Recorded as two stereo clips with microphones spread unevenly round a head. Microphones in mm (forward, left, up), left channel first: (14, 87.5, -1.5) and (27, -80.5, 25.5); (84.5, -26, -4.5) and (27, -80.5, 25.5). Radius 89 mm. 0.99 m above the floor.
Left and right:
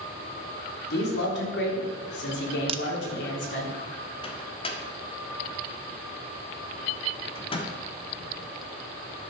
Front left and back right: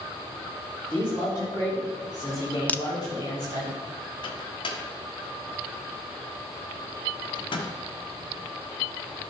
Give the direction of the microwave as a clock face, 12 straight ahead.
11 o'clock.